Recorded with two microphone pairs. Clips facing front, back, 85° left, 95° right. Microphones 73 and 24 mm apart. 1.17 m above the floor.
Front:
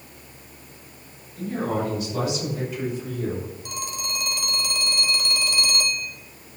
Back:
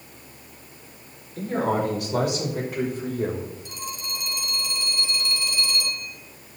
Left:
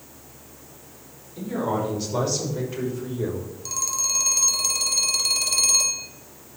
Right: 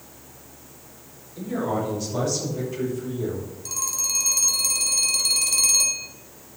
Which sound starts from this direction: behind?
A man speaking, at 1.4 s.